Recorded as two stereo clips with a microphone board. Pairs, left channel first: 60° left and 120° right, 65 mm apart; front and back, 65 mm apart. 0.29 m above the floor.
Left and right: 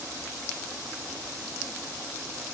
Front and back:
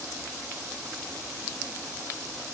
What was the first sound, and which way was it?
Only background noise.